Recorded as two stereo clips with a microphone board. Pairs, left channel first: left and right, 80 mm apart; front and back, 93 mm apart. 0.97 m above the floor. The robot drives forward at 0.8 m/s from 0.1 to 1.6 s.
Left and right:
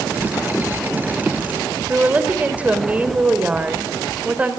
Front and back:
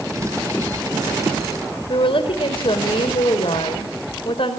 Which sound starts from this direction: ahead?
A woman speaking, at 1.9 s.